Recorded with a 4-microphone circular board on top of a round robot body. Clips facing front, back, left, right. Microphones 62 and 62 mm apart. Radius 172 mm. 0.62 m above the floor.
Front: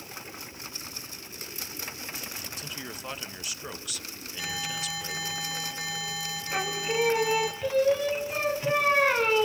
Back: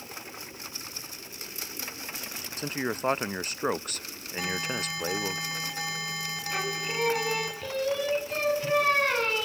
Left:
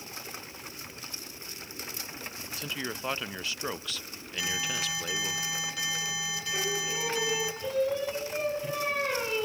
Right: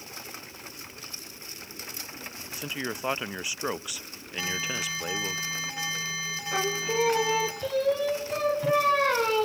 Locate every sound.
2.6 s a man speaking: 160° right, 0.8 m
4.4 s an alarm: 145° right, 6.5 m
6.5 s singing: 80° right, 1.7 m